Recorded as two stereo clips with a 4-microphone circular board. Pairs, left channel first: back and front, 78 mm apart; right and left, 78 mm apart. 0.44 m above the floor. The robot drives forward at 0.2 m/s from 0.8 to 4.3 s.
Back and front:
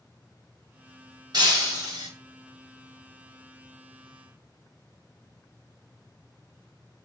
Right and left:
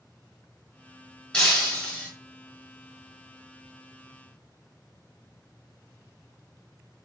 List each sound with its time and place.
1.3 s breaking glass: 10° right, 1.2 m; by 2.1 s 15° right, 1.1 m